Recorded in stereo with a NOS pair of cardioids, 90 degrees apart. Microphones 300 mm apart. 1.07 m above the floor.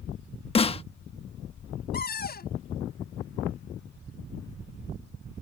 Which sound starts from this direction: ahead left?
A cupboard door, at 1.9 s.